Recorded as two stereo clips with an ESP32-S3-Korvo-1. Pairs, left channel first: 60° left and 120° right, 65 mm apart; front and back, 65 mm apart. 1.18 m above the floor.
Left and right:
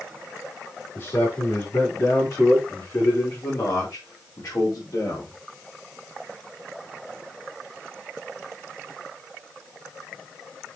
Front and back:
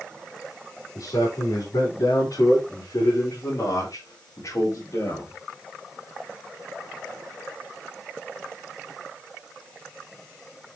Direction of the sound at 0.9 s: 10° left.